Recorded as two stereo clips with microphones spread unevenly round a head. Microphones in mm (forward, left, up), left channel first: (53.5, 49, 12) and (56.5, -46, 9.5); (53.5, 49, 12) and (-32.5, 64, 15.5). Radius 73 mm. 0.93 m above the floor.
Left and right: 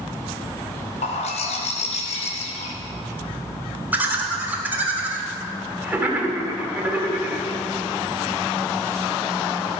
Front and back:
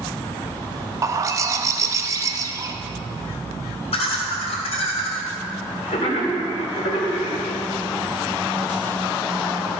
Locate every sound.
1.0 s a bird: 115° left, 0.9 m
3.9 s laughter: 15° right, 2.5 m